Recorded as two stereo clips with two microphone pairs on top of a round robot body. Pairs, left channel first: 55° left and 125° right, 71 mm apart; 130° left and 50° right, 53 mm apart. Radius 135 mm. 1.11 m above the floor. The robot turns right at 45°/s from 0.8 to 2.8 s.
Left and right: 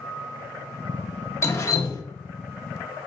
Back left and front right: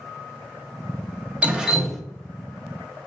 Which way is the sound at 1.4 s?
5° left.